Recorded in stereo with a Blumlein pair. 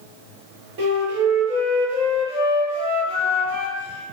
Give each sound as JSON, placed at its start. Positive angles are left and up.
{"t": 0.8, "sound": "a flute", "azimuth_deg": -55, "distance_m": 1.3}